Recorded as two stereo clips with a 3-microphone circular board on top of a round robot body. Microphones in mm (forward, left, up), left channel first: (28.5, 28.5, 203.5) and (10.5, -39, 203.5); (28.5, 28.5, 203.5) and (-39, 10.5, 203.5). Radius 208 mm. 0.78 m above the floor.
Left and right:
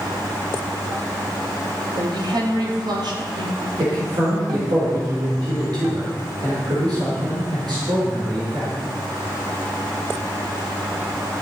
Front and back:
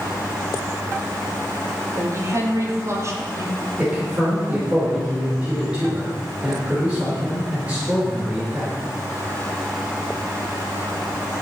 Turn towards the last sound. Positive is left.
turn(degrees=-90)